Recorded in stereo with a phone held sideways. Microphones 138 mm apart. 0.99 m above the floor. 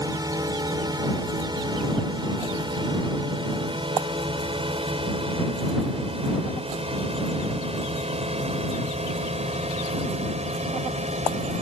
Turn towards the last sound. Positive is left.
turn(degrees=-55)  # may be behind; listen again after turning